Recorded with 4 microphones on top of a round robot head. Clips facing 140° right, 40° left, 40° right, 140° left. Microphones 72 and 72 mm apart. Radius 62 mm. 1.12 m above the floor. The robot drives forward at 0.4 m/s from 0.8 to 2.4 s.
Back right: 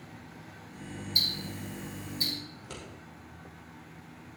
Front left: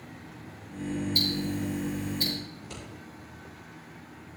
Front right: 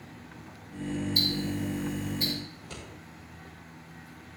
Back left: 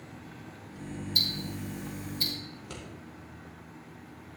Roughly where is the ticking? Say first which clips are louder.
Front left 8 dB, front right 6 dB; behind left.